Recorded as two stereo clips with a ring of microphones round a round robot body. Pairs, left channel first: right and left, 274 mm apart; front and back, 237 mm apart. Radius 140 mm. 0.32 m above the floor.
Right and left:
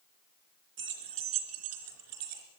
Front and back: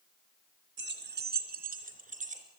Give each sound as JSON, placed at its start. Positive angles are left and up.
{"t": 0.8, "sound": "keys jangling", "azimuth_deg": 140, "distance_m": 2.5}